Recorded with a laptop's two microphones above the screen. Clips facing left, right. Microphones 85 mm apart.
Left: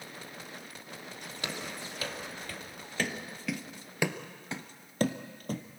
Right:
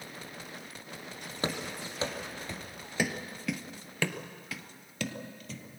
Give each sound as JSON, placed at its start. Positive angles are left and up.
{"t": 1.4, "sound": "running footsteps", "side_deg": -35, "distance_m": 1.7}